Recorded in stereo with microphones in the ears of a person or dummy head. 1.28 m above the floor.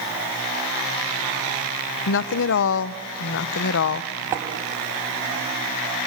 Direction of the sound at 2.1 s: 65° left (ahead or behind).